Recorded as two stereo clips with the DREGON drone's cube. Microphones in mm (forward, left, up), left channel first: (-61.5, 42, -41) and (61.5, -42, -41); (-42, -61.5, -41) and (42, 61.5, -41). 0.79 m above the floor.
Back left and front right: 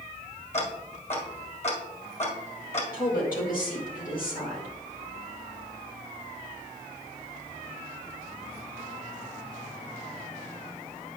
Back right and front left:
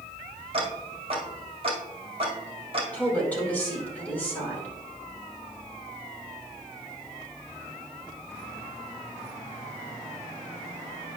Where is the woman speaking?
155° left, 2.5 m.